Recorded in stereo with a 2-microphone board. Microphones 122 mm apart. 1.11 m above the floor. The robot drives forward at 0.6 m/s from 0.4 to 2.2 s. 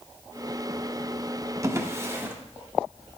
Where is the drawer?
25° right (ahead or behind), 0.9 m; by 2.4 s 20° right (ahead or behind), 1.2 m.